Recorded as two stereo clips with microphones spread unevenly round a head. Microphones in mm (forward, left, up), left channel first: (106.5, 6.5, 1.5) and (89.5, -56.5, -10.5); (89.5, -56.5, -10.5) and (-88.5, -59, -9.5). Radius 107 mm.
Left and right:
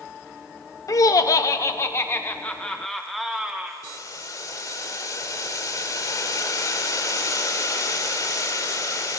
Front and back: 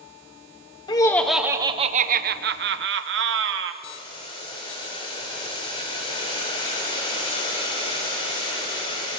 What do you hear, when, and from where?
0.9 s laughter: 70° left, 0.6 m; by 3.7 s 170° left, 1.3 m
3.8 s boiling: 65° left, 3 m